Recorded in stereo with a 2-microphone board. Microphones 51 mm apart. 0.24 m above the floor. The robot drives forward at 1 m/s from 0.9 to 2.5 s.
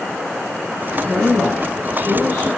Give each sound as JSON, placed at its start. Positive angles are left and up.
{"t": 1.0, "sound": "a woman speaking", "side_deg": -50, "distance_m": 1.7}